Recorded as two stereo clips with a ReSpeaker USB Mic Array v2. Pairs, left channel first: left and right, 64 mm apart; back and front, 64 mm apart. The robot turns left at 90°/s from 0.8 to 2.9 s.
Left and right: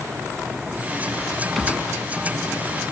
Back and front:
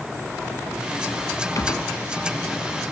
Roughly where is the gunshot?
Behind.